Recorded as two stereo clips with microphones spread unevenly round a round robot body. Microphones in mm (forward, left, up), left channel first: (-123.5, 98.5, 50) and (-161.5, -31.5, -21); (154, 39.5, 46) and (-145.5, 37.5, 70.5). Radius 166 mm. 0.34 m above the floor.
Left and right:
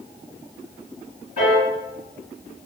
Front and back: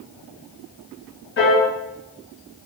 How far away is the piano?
About 1.6 m.